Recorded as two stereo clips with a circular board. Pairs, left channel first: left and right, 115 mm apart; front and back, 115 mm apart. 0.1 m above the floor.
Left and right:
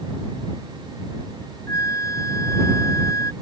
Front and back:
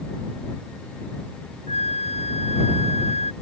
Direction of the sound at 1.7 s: 25° left.